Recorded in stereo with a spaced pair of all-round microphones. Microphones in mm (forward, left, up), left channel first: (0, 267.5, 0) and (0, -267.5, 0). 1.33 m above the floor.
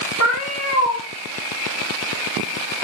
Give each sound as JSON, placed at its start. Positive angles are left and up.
{"t": 0.2, "sound": "a cat meowing", "side_deg": 30, "distance_m": 8.5}